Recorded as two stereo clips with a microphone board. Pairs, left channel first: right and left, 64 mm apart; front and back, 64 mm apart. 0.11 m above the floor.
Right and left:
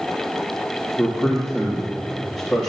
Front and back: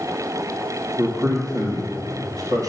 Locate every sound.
1.0 s a man speaking: 155° left, 3.5 m